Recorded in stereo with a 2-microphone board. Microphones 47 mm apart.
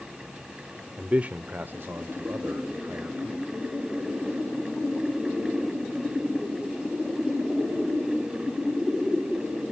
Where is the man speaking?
25° right (ahead or behind), 0.9 m; by 3.5 s 65° right (ahead or behind), 1.8 m.